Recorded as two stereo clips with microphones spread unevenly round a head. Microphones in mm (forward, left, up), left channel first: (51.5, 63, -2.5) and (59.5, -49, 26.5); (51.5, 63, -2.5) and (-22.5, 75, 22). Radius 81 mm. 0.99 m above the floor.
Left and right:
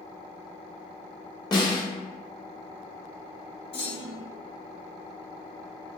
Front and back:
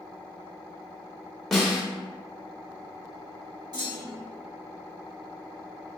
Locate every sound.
1.5 s a snare drum: 65° left, 1.3 m
3.7 s a clunk: 135° left, 1.9 m